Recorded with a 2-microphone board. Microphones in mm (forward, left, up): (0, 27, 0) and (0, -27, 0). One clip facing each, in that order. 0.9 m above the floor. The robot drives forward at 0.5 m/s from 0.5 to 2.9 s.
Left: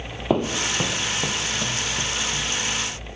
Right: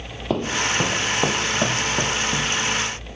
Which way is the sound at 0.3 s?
10° left (ahead or behind).